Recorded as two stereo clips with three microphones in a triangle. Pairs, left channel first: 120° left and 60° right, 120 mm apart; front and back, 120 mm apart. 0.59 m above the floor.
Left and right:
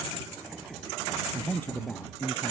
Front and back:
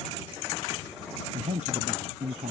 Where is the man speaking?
165° right; by 2.5 s 170° right.